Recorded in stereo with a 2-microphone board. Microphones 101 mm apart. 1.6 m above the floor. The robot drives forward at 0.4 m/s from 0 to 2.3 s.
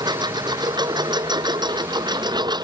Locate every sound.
0.0 s a lawn mower: 45° right (ahead or behind)